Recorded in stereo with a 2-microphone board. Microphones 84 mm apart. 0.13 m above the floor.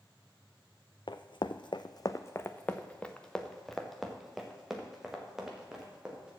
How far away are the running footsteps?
About 0.6 m.